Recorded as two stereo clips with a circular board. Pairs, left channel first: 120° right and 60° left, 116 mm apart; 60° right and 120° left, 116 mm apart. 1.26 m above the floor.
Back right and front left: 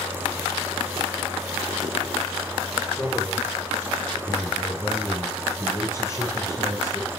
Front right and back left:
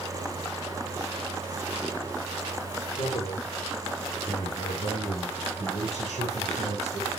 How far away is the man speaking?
About 3 m.